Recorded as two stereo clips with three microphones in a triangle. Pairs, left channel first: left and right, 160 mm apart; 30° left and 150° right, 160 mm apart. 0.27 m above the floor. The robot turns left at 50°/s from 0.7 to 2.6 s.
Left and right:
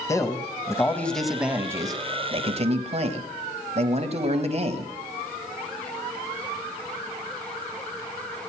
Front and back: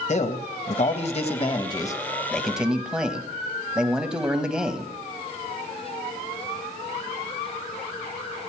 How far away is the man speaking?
About 1.3 m.